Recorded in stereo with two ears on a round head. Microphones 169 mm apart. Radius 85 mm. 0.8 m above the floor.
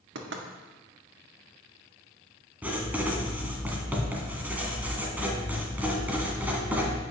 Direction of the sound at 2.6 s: 10° right (ahead or behind).